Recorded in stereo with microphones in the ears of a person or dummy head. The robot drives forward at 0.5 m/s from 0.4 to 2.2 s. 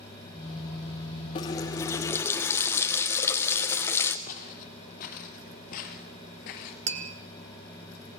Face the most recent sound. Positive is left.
turn(degrees=-30)  # may be behind; listen again after turning